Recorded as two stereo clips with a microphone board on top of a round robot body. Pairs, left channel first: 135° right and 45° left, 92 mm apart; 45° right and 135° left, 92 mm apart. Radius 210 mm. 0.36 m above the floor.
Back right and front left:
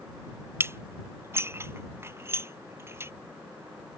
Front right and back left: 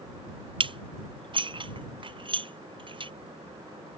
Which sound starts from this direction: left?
Dishes clattering, at 0.6 s.